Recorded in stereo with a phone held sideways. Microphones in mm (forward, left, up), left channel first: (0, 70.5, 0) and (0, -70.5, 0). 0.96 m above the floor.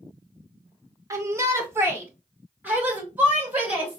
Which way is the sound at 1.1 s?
20° right (ahead or behind).